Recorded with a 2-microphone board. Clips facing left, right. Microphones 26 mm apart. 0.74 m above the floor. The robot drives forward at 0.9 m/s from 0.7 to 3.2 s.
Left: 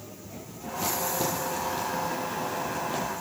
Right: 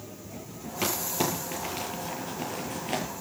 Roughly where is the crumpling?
Right.